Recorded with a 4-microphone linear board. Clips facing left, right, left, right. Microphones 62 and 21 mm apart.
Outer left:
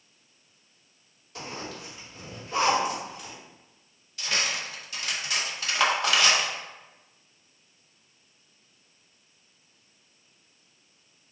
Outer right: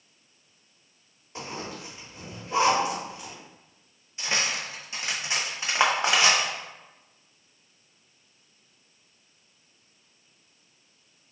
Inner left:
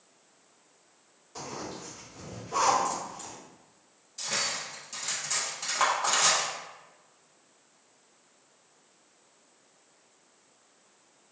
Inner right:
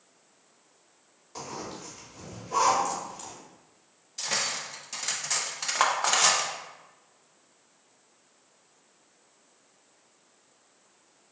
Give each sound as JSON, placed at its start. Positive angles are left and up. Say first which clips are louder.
{"t": 1.4, "sound": "a zipper", "louder": "outer right 1 dB, even", "side_deg": -25, "distance_m": 1.6}
{"t": 4.2, "sound": "cutlery clinking", "louder": "outer right 1 dB, inner right 1 dB", "side_deg": -25, "distance_m": 0.6}